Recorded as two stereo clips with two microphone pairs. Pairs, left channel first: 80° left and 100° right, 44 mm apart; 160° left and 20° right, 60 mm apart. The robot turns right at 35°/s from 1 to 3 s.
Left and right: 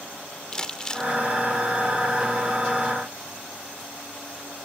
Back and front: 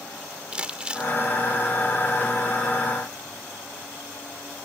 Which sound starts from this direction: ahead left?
Crumpling, at 0.5 s.